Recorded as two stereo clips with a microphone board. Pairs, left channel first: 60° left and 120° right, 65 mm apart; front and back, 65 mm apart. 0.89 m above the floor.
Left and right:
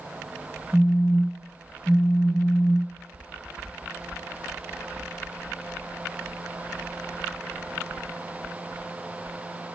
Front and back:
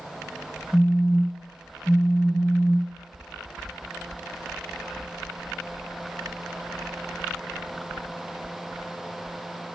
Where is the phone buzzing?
60° right, 2.0 m.